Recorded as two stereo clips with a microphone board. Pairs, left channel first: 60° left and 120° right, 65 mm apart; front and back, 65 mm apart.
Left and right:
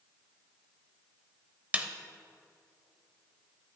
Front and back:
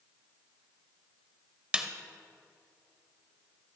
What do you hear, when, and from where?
1.7 s a snare drum: 140° right, 0.9 m